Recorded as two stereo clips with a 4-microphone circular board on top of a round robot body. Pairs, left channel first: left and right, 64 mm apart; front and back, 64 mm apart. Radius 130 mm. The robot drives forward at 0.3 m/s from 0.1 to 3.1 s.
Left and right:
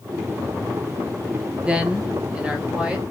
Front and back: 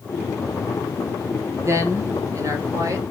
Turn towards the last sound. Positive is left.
turn(degrees=-165)